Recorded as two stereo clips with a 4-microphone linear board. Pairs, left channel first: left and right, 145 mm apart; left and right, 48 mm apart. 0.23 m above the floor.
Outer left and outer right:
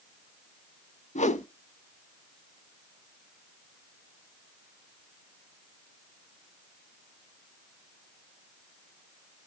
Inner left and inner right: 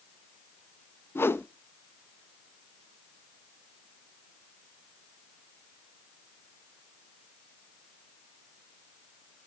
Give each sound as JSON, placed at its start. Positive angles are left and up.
{"t": 1.1, "sound": "a whoosh", "side_deg": 55, "distance_m": 0.5}